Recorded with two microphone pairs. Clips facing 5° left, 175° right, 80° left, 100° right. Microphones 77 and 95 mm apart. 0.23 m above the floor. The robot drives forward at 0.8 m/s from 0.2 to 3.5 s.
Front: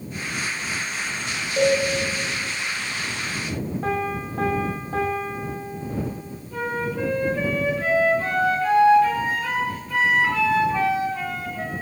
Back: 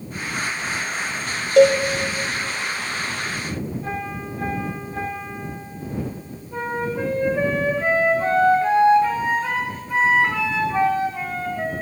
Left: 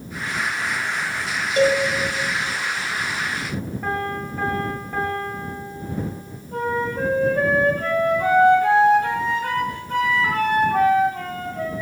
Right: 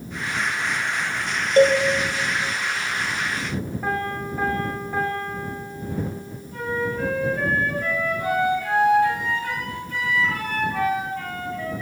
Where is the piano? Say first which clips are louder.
Front 4 dB, left 1 dB; 15° right, 5.5 m.